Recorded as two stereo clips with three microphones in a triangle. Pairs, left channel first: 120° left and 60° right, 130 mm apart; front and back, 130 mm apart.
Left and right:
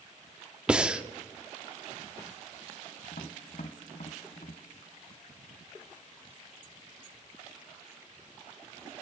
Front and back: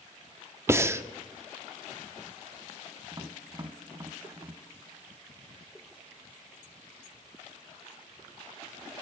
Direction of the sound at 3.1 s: 120° left.